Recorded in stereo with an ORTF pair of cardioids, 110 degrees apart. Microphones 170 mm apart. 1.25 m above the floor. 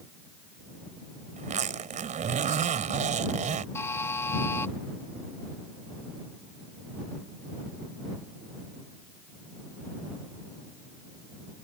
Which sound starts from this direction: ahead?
A buzzer, at 3.8 s.